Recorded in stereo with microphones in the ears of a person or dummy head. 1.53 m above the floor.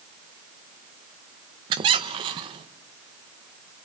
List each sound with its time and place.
1.7 s a squeak: 25° right (ahead or behind), 0.9 m